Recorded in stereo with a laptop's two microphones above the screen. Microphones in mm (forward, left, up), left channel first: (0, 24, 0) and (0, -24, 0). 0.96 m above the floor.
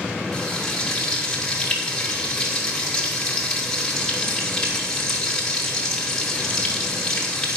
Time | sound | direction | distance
0.3 | frying | 10° left (ahead or behind) | 2 m